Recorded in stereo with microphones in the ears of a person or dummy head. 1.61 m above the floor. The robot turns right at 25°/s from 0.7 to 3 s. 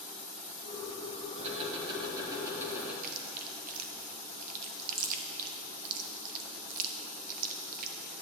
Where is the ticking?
40° right, 1.2 m; by 2.9 s straight ahead, 1.2 m.